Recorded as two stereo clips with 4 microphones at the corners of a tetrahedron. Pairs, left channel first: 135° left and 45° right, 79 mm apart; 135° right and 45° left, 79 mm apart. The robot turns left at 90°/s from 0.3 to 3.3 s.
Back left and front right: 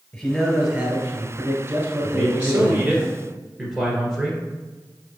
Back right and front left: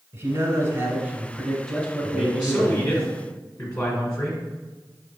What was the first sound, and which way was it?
A man speaking, 65° left.